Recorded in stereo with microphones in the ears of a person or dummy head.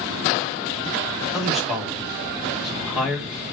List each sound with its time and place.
1.3 s a man speaking: centre (ahead or behind), 1.5 m